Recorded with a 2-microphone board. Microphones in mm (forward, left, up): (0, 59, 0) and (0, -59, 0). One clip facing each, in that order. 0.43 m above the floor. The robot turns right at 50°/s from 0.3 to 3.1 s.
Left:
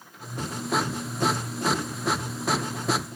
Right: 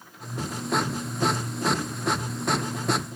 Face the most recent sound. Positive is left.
No sound to turn to.